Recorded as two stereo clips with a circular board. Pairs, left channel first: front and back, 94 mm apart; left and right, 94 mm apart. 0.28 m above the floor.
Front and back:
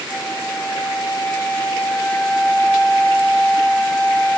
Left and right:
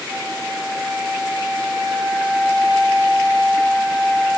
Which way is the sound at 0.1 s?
70° right.